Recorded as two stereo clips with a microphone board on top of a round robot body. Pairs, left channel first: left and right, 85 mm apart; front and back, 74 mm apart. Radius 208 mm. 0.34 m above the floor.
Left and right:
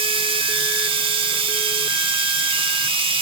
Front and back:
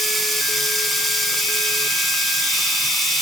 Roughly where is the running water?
Right.